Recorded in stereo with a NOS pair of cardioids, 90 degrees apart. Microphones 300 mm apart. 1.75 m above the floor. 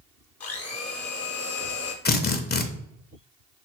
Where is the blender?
55° left, 1.0 m.